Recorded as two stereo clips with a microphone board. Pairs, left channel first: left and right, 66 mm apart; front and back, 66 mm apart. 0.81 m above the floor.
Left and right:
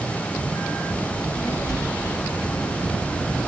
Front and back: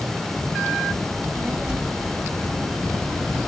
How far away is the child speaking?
About 2.5 m.